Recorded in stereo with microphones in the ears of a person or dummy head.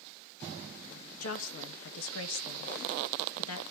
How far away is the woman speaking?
About 1.9 m.